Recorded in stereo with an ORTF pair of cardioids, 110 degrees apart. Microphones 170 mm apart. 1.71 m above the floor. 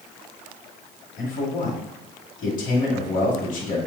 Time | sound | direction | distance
1.2 | a man speaking | 50° left | 1.7 m